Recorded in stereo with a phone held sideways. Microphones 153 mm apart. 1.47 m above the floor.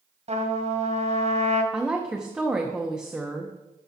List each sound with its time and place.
0.3 s a trumpet: 50° right (ahead or behind), 1.8 m
1.7 s a woman speaking: 5° right (ahead or behind), 0.9 m